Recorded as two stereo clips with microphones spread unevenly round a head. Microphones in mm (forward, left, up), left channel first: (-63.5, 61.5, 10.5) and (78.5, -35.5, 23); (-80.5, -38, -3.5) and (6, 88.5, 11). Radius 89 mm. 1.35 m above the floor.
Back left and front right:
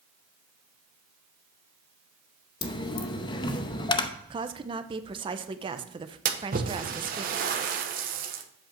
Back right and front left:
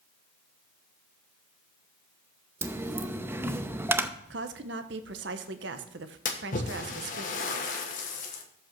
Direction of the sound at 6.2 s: 80° right.